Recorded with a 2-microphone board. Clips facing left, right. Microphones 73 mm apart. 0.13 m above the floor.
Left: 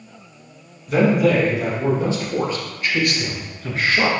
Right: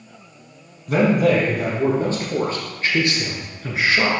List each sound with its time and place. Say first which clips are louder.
0.9 s a man speaking: even; 55° right (ahead or behind), 3 m; by 4.1 s 5° right (ahead or behind), 1.5 m